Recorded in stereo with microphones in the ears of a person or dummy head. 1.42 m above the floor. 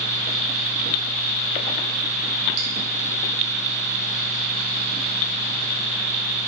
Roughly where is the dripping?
Right.